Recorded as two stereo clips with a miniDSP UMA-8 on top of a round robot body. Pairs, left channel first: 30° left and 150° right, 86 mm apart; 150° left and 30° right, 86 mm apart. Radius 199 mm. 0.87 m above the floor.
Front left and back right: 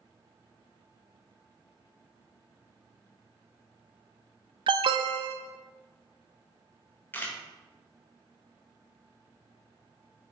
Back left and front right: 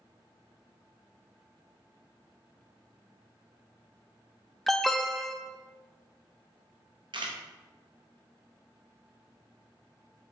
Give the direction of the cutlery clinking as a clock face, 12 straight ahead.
I don't hear cutlery clinking.